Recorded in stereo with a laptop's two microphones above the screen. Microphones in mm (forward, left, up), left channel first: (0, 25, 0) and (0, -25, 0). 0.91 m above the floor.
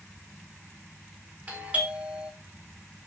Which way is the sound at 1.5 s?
30° right (ahead or behind).